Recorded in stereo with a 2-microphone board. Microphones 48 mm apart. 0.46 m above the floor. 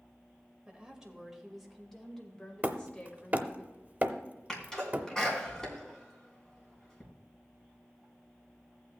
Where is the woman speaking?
15° right (ahead or behind), 2 m; by 3.6 s 35° left (ahead or behind), 2 m.